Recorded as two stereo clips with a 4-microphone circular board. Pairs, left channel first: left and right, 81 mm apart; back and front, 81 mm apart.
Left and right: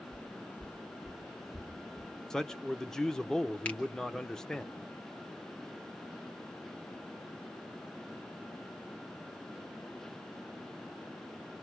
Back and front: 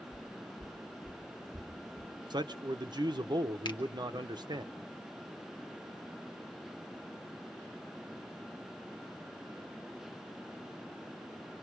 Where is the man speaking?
10° left, 0.8 m.